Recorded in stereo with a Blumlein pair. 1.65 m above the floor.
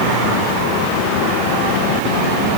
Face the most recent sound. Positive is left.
No sound to turn to.